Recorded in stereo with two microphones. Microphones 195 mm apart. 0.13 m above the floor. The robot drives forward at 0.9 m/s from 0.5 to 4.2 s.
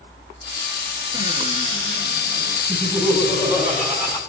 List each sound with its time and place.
1.1 s a cupboard door: 40° left (ahead or behind), 1.1 m; by 2.6 s 20° left (ahead or behind), 2 m
2.7 s laughter: centre (ahead or behind), 6.5 m